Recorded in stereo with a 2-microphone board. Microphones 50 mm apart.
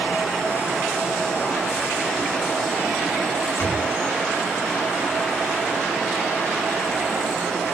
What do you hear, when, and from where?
3.6 s a door slam: 45° left (ahead or behind), 8 m